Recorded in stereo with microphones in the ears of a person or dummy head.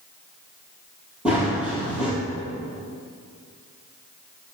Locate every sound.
1.2 s running footsteps: 5° right (ahead or behind), 2 m